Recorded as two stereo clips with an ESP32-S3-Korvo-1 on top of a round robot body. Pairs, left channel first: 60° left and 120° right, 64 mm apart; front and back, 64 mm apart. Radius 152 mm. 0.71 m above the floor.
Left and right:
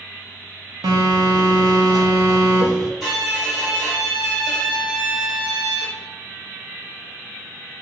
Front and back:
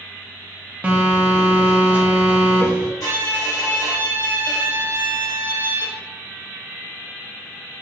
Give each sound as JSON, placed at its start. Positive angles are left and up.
{"t": 0.8, "sound": "a phone buzzing", "azimuth_deg": -110, "distance_m": 0.5}
{"t": 3.0, "sound": "a violin", "azimuth_deg": -30, "distance_m": 1.2}